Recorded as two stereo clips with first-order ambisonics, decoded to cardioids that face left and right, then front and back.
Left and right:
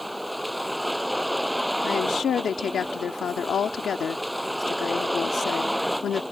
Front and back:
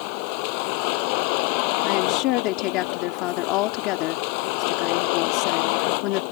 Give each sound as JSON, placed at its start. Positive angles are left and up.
{"t": 0.0, "sound": "a vehicle", "azimuth_deg": 0}
{"t": 1.8, "sound": "a woman speaking", "azimuth_deg": 30}